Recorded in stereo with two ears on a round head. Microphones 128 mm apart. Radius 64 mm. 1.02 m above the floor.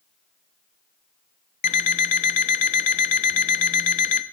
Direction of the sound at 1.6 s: 50° left (ahead or behind).